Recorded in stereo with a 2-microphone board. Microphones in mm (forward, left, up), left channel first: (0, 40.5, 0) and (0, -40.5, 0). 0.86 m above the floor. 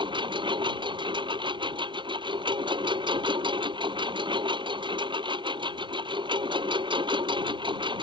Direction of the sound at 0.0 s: 80° right.